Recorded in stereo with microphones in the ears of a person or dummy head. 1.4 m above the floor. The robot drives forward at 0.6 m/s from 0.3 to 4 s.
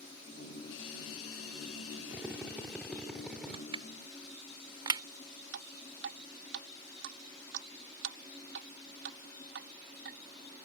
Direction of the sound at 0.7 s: 70° left (ahead or behind).